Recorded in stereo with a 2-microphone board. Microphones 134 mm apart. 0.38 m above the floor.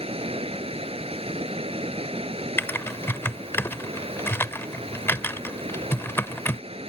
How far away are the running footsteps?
I don't hear running footsteps.